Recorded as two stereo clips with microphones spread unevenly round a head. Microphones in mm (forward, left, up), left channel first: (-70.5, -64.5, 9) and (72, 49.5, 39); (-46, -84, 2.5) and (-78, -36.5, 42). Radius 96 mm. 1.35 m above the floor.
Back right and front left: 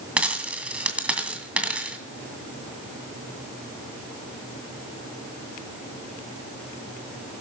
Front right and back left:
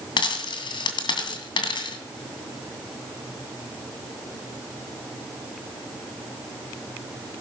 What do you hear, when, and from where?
0.2 s a dropped coin: 40° right, 2.5 m